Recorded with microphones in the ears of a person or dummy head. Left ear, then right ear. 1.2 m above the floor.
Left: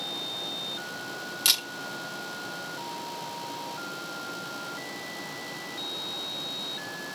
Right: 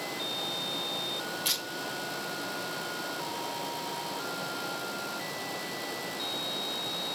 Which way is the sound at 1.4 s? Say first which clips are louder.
Left 8 dB; 50° left (ahead or behind).